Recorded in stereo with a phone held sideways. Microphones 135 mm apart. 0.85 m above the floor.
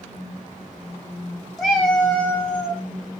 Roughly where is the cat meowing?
Centre.